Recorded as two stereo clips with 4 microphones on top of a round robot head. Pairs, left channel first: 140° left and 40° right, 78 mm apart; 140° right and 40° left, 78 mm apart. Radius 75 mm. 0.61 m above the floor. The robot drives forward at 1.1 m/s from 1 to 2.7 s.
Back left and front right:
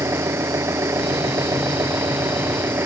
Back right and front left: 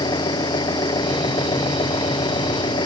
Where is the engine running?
100° right; by 2.9 s 105° right.